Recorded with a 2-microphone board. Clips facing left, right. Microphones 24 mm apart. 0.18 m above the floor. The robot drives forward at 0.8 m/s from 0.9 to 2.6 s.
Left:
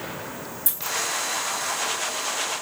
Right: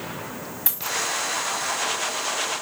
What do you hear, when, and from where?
0.7 s a dropped coin: 50° right (ahead or behind), 4 m